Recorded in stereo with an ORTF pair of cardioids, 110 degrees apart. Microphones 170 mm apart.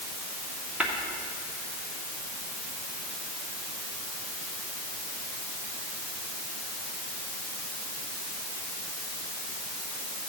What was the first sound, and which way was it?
Tapping, 5° right.